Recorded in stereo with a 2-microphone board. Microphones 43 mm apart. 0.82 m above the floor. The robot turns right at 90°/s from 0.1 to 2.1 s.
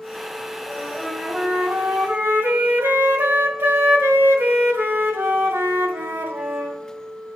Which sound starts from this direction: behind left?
A flute, at 0.7 s.